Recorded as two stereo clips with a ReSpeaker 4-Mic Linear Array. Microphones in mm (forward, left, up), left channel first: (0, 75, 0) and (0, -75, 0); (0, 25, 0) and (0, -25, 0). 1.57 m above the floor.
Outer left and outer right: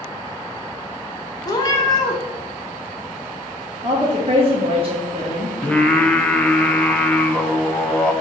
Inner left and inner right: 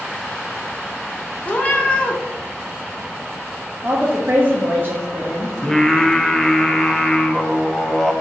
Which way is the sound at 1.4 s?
25° left (ahead or behind).